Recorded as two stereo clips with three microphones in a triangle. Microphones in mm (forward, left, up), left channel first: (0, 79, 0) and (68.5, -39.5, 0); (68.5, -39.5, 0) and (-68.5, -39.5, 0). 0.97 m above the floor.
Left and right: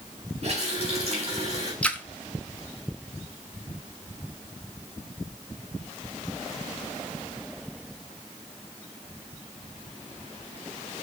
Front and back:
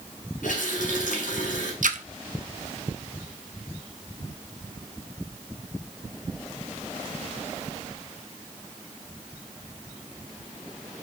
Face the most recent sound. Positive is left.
turn(degrees=-160)